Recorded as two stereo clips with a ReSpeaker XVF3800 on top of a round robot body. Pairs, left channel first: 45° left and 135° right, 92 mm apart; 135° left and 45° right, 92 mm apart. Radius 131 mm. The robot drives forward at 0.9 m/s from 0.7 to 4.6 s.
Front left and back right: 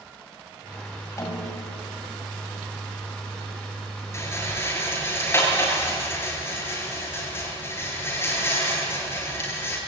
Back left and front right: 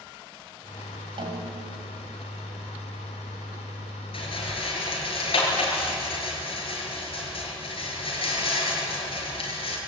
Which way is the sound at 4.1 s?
105° left.